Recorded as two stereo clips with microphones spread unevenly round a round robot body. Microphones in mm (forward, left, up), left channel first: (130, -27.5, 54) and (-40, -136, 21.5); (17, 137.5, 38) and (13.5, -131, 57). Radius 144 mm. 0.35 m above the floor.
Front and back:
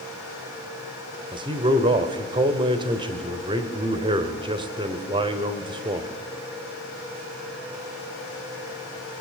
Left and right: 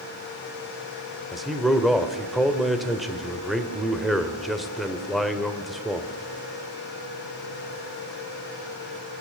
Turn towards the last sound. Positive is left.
turn(degrees=175)